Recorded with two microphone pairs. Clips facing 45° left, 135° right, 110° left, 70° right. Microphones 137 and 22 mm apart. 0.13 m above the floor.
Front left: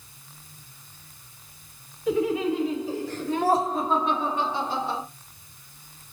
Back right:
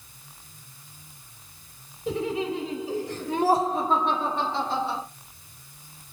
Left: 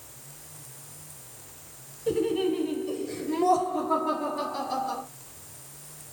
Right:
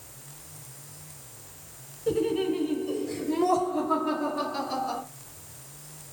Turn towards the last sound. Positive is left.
turn(degrees=-20)